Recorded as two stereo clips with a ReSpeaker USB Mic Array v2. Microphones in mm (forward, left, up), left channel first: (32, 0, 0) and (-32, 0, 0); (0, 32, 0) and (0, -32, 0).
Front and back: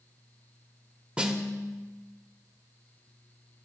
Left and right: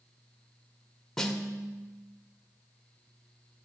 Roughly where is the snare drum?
Behind left.